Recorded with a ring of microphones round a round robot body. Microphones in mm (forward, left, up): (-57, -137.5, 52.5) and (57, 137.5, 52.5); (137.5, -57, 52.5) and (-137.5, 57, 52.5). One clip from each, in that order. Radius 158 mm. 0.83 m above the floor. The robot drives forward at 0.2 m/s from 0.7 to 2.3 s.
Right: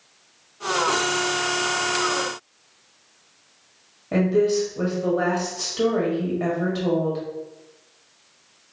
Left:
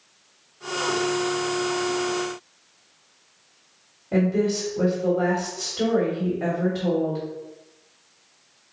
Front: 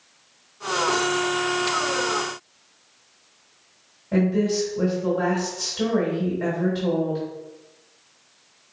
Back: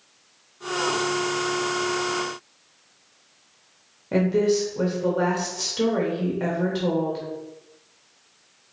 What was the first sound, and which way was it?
A woman speaking, 175° right.